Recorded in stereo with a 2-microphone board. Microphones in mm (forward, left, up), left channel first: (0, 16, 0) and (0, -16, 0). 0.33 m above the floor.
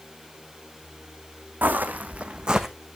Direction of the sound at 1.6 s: 75° right (ahead or behind).